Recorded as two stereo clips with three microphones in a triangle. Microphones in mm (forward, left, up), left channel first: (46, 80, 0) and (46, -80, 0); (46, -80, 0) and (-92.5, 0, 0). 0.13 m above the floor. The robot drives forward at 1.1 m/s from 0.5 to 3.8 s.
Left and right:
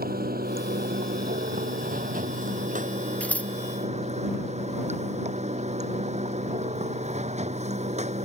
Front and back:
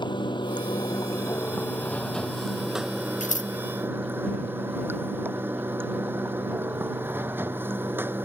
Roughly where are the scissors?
Ahead.